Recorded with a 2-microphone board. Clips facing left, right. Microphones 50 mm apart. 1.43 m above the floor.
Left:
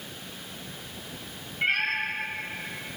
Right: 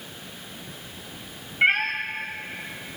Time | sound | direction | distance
1.6 | a cat meowing | 45° right (ahead or behind) | 2.5 m